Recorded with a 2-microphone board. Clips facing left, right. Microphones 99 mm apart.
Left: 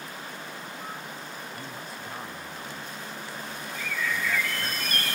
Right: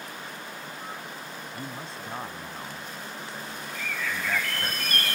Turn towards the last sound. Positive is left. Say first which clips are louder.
# left 2 dB
turn(degrees=-55)  # may be behind; listen again after turning